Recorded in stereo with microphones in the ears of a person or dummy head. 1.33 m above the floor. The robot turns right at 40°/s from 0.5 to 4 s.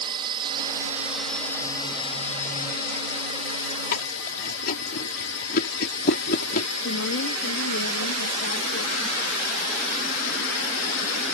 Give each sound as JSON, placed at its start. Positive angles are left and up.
{"t": 0.0, "sound": "a drone", "azimuth_deg": -30}
{"t": 3.9, "sound": "chewing", "side_deg": 50}
{"t": 6.8, "sound": "a woman speaking", "side_deg": 70}